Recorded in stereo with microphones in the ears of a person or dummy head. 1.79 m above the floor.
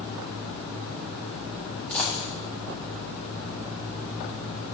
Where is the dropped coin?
10° left (ahead or behind), 1.5 m.